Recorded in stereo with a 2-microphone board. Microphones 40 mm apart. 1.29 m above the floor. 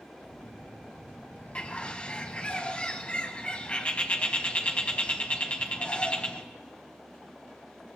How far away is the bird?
About 1.6 m.